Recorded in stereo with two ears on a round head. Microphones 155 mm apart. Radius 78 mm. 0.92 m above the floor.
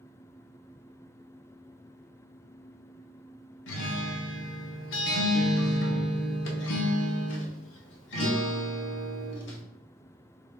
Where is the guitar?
80° left, 0.7 m.